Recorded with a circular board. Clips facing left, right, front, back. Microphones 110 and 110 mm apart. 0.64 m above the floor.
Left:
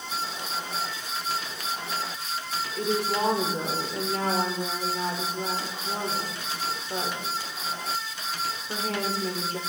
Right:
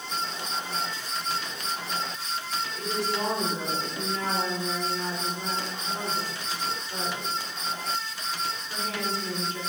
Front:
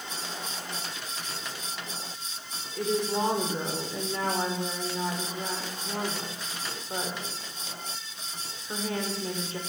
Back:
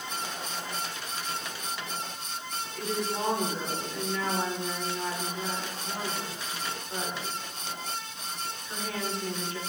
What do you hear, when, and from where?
2.8 s a woman speaking: 60° left, 1.8 m